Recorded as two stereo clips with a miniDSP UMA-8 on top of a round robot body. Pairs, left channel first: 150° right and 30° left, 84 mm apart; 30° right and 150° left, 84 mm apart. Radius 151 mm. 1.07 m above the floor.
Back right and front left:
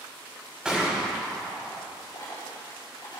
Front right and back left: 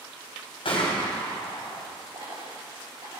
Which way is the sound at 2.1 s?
165° left.